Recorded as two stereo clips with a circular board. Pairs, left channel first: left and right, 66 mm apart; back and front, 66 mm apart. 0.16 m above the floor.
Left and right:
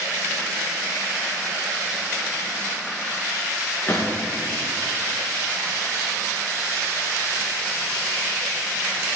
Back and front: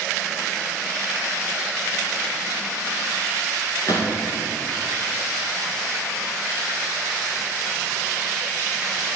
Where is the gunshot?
150° left, 4 m.